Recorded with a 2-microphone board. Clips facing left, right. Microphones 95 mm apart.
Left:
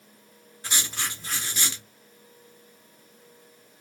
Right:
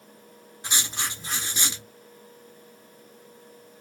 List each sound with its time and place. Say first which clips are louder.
0.6 s writing: right 1 dB; 20° right (ahead or behind), 1.2 m